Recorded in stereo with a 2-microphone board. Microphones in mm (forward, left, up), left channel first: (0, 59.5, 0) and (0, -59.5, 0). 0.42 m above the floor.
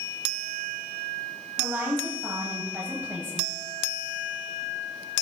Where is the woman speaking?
20° right (ahead or behind), 2 m.